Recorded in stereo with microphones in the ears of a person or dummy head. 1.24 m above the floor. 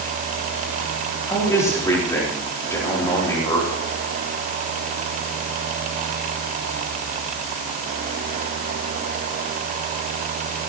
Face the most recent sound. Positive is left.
turn(degrees=15)  # may be behind; listen again after turning